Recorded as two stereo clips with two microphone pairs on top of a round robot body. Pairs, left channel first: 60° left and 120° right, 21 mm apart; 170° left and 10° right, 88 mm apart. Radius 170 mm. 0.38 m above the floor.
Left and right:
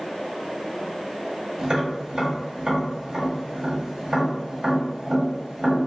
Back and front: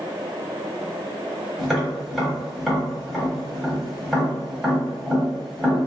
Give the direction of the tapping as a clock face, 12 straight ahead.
3 o'clock.